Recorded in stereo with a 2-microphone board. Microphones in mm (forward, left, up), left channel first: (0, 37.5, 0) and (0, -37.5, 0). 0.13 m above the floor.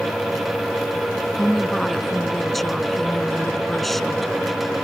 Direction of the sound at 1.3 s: 5° left (ahead or behind).